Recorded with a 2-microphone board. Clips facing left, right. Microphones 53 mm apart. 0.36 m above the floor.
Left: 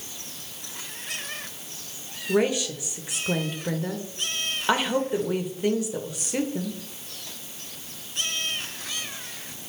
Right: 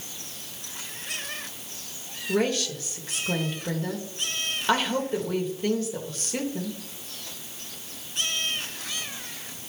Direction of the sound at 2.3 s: 15° left (ahead or behind).